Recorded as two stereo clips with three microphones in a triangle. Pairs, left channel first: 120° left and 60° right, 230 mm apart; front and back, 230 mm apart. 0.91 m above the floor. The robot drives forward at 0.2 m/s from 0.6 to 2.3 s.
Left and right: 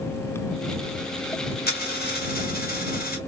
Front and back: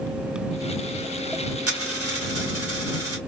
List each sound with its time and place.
1.7 s a dropped coin: 170° left, 1.1 m